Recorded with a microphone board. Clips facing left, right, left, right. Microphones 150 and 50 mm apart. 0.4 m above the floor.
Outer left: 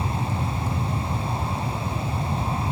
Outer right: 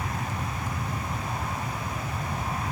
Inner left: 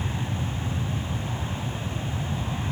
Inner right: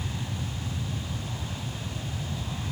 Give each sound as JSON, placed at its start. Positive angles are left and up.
{"t": 0.0, "sound": "an aircraft", "side_deg": 20}